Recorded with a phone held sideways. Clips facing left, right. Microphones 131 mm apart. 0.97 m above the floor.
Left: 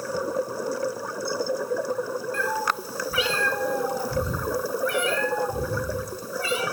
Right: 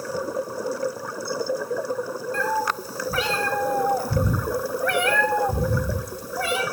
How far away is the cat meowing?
About 3.5 m.